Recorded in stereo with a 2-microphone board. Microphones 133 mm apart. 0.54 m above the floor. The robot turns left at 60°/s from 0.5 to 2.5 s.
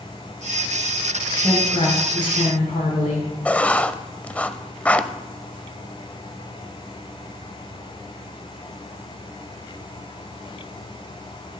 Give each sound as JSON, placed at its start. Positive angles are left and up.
{"t": 1.4, "sound": "a woman speaking", "azimuth_deg": 155, "distance_m": 6.5}
{"t": 3.5, "sound": "writing", "side_deg": 10, "distance_m": 0.7}